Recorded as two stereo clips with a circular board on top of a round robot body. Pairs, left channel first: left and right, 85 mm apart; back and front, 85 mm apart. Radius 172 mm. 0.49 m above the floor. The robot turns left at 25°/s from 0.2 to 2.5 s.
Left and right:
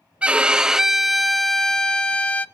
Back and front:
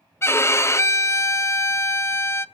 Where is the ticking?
I don't hear ticking.